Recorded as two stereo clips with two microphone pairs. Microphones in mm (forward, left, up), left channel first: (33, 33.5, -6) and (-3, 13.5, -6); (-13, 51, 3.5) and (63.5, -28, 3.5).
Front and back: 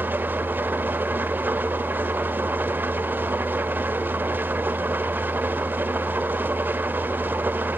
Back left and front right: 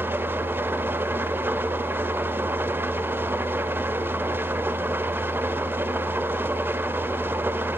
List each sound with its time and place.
0.0 s an engine running: 115° right, 1.2 m